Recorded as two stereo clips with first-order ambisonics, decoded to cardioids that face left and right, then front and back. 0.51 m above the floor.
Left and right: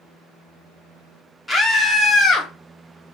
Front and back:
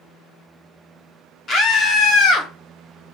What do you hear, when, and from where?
1.5 s a scream: 5° left, 0.7 m; by 2.5 s 20° left, 1.0 m